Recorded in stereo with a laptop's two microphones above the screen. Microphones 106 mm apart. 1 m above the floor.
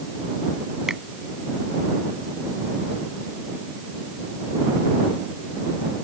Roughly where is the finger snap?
Centre.